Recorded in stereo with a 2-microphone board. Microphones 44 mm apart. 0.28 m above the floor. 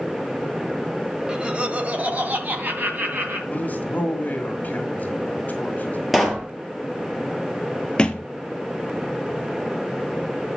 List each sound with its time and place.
1.3 s laughter: 20° right (ahead or behind), 1.3 m; by 3.4 s 55° right (ahead or behind), 2.5 m
3.5 s a man speaking: 40° left (ahead or behind), 1.9 m
6.1 s a pop: 5° right (ahead or behind), 1.6 m
8.0 s a thud: 20° left (ahead or behind), 0.8 m